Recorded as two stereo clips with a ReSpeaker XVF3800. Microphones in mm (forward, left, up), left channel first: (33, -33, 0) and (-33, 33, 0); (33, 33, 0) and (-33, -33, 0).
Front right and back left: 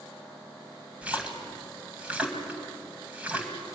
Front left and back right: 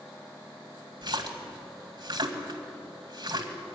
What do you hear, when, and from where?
1.0 s a splash: 150° right, 2 m